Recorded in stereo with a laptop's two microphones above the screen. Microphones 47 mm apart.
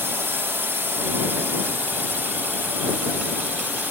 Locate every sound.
0.0 s a drone: 55° right (ahead or behind); by 3.9 s 45° right (ahead or behind)